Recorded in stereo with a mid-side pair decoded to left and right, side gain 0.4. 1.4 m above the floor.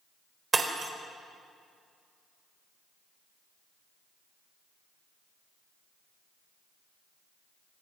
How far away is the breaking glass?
About 4 m.